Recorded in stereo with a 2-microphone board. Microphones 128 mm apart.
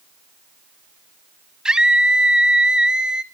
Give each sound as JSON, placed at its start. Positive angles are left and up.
{"t": 1.6, "sound": "a scream", "side_deg": -5, "distance_m": 1.5}